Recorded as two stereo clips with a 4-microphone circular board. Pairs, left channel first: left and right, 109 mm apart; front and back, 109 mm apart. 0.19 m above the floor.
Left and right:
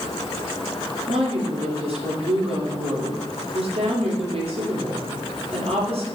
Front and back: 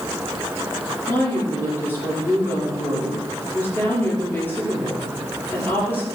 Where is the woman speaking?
70° right, 5.5 m.